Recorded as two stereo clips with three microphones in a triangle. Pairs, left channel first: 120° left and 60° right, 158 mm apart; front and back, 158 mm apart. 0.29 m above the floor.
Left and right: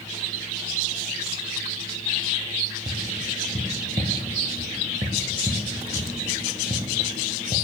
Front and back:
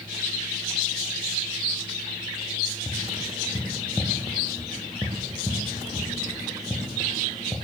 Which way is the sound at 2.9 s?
90° right.